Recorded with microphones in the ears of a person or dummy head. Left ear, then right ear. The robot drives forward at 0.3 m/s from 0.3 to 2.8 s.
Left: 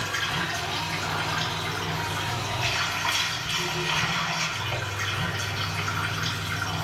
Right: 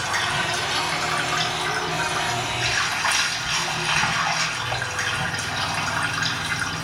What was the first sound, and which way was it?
Running water, 70° right (ahead or behind).